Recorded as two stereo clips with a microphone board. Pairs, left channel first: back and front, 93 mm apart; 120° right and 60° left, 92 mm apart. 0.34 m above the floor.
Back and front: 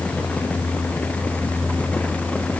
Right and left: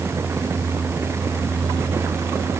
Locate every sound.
Only background noise.